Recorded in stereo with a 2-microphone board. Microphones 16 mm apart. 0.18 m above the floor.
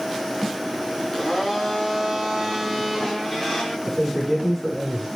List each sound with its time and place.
1.1 s a blender: 10° left (ahead or behind), 4.5 m
3.9 s a man speaking: 15° left (ahead or behind), 6.5 m